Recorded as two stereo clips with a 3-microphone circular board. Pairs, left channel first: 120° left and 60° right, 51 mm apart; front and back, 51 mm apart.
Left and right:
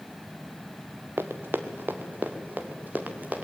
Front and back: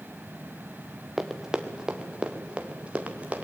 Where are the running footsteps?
95° right, 1.5 m; by 3.5 s 115° right, 2.5 m.